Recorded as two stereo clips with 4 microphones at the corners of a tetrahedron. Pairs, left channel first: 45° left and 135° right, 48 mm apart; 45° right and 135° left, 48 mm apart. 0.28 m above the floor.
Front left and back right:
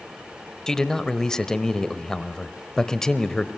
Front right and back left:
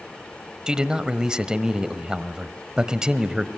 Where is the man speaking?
100° left, 1.0 m.